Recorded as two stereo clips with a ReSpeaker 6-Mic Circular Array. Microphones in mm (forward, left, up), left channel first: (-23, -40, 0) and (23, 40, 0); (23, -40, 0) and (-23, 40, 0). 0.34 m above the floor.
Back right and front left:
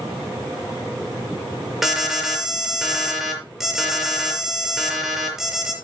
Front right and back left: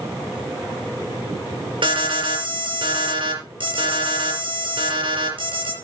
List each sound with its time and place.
1.8 s an alarm: 145° left, 5.5 m